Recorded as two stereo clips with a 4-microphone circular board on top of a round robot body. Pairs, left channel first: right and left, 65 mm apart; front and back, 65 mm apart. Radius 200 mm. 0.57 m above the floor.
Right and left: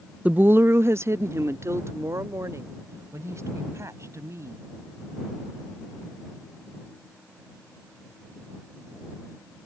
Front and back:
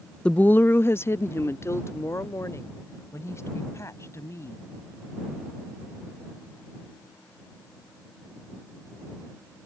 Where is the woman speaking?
55° left; by 4.6 s 45° left.